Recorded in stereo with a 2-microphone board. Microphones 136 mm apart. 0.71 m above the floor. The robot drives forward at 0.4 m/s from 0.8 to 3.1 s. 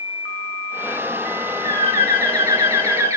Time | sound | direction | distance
1.6 | a bird | 25° right (ahead or behind) | 1.2 m